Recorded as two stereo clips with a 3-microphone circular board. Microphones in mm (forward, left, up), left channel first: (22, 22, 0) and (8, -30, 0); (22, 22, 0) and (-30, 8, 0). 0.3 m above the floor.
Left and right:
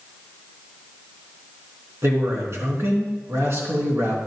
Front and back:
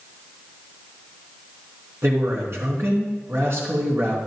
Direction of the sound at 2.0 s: 130° right.